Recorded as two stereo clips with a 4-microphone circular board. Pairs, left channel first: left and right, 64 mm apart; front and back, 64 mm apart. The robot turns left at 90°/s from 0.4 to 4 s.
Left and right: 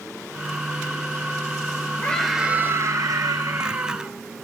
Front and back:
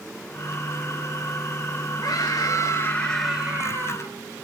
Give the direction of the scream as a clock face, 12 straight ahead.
11 o'clock.